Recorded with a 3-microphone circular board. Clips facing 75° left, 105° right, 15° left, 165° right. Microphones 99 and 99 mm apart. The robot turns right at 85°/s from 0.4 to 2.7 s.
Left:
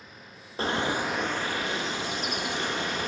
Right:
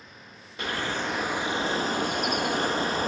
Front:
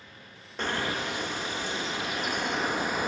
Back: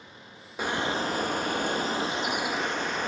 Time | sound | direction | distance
0.6 | a bird | 115° left | 0.7 m